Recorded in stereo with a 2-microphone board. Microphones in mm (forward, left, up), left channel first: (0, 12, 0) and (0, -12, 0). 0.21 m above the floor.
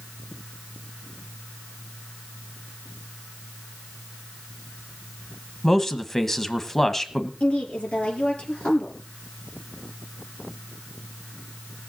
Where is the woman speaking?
70° left (ahead or behind), 4.5 m.